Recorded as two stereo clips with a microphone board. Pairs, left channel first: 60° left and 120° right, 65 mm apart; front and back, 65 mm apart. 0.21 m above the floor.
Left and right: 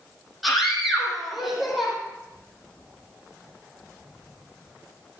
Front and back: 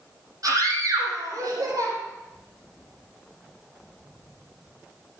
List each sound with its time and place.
0.4 s a scream: 150° left, 9 m